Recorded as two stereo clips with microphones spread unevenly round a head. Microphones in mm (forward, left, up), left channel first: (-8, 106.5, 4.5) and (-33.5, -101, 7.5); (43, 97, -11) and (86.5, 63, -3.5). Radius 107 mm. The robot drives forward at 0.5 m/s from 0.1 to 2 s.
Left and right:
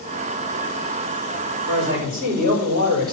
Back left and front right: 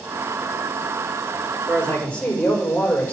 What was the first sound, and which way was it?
A man speaking, 145° right.